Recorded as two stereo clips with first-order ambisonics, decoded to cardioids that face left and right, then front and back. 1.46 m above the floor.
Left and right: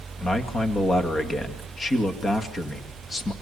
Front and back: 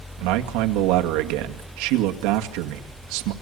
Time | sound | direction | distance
0.2 | a man speaking | 165° left | 1.9 m